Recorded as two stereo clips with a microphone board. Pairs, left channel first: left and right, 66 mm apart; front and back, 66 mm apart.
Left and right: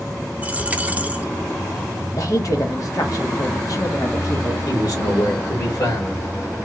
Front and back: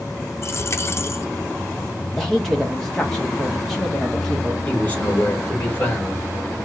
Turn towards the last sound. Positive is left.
turn(degrees=65)